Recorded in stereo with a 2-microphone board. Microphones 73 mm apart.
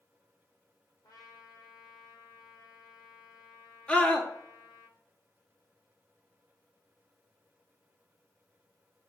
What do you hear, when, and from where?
1.0 s a trumpet: 70° left (ahead or behind), 4 m
3.9 s a scream: 10° left (ahead or behind), 1.9 m